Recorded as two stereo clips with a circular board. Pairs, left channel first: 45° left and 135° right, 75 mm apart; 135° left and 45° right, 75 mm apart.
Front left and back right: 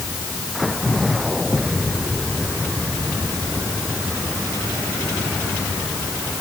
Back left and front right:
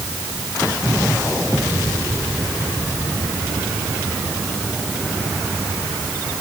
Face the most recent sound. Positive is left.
No sound to turn to.